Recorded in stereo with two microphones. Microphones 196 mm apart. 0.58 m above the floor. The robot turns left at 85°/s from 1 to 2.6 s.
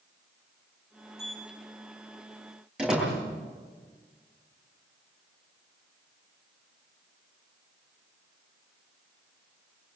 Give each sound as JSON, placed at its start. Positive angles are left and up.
{"t": 1.2, "sound": "a sliding door", "side_deg": -55, "distance_m": 1.6}
{"t": 2.8, "sound": "a door slam", "side_deg": -5, "distance_m": 9.5}